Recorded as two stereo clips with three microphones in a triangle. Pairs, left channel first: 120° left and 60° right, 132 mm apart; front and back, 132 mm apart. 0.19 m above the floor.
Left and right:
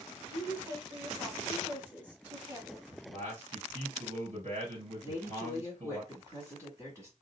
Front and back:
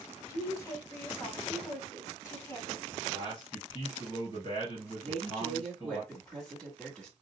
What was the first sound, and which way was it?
A woman speaking, 5° right.